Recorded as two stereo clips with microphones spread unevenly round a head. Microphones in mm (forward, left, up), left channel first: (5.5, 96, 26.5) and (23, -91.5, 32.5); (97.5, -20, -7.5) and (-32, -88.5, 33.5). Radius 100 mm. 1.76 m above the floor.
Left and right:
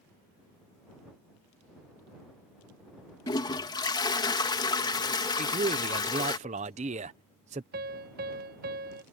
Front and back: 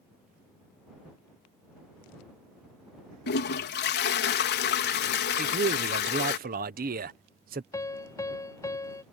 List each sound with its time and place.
3.3 s a toilet flushing: 25° left
5.4 s a man speaking: 140° right
7.7 s a piano: 45° right